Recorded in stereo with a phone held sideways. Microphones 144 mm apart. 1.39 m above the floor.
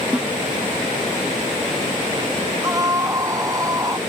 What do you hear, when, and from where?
0.1 s a snare drum: 10° right (ahead or behind)
2.6 s a scream: 25° right (ahead or behind)